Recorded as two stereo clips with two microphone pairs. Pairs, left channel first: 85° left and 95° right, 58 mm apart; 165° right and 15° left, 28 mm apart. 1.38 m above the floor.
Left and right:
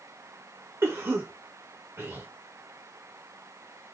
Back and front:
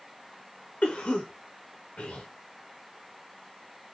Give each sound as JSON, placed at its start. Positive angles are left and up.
{"t": 0.8, "sound": "a cough", "azimuth_deg": -135, "distance_m": 0.9}